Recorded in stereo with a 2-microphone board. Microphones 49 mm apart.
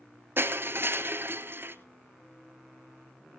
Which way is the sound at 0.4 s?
50° right (ahead or behind).